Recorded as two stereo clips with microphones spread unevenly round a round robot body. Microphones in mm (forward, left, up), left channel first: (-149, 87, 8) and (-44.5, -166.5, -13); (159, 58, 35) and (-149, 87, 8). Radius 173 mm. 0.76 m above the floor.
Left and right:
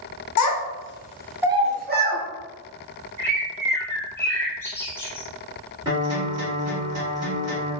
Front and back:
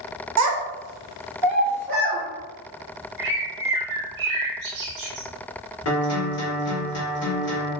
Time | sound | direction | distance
0.4 | a child speaking | 135° left | 0.7 m
3.2 | a bird | 165° right | 1.0 m
5.8 | a guitar | straight ahead | 1.3 m